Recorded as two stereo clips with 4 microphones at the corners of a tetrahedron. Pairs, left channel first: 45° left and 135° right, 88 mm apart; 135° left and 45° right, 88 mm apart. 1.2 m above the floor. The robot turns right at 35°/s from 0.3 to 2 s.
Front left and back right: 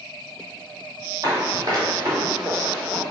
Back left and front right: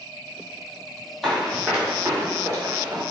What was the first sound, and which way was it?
Running footsteps, 145° right.